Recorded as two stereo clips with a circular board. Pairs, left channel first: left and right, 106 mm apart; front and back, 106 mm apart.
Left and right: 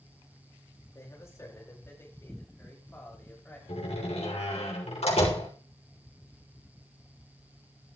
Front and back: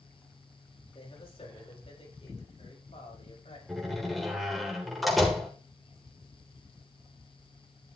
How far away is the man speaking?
About 5.5 m.